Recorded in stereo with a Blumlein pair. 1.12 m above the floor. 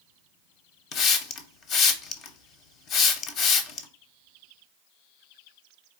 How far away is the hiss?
About 0.6 m.